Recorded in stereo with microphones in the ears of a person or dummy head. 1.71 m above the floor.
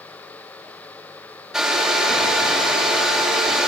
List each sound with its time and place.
1.5 s a hair dryer: centre (ahead or behind), 4.5 m